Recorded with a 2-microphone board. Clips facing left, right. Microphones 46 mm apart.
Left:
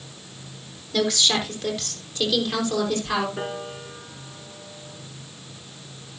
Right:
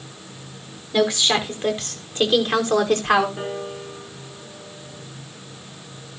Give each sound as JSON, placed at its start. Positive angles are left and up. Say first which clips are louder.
{"t": 0.9, "sound": "a woman speaking", "louder": "right 3 dB", "side_deg": -20, "distance_m": 4.0}
{"t": 3.4, "sound": "a piano", "louder": "right 2 dB", "side_deg": 10, "distance_m": 5.0}